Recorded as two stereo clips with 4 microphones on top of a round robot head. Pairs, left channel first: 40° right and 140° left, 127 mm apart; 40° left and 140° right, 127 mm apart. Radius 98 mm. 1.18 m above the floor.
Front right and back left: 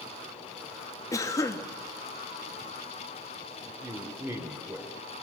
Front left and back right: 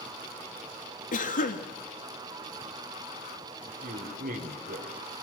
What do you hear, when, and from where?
1.1 s a cough: 25° left, 2.5 m
3.8 s a man speaking: 140° right, 4 m